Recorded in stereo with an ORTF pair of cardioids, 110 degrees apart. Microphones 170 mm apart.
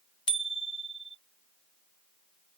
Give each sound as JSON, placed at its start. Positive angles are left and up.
{"t": 0.3, "sound": "a bicycle bell", "azimuth_deg": 30}